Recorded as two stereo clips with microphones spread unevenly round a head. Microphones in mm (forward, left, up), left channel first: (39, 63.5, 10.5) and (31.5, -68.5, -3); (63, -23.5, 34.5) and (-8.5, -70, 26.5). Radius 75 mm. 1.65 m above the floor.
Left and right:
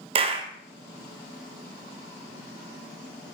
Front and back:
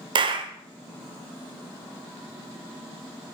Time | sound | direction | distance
0.1 | a clap | 140° right | 1.0 m